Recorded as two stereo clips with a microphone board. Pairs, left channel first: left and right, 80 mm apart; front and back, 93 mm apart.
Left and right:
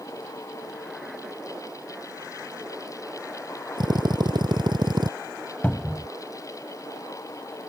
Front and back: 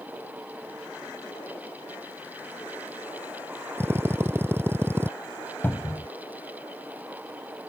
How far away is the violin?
No violin in this recording.